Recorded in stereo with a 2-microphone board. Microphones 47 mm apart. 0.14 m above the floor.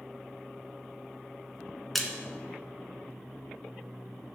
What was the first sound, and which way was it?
A splash, centre (ahead or behind).